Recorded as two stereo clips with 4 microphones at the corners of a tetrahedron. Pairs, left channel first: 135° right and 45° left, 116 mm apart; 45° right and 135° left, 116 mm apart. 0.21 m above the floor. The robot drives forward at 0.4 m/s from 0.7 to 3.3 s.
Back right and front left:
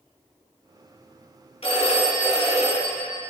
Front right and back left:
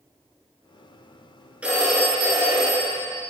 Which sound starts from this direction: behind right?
A phone ringing, at 1.6 s.